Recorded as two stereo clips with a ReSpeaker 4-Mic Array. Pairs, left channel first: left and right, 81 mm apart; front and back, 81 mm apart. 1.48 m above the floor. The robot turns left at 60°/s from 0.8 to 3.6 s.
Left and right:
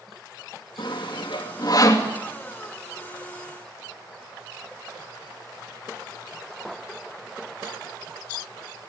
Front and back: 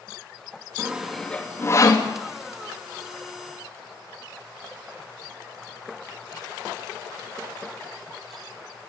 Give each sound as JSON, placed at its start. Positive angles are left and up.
{"t": 0.8, "sound": "sawing", "azimuth_deg": 110, "distance_m": 3.0}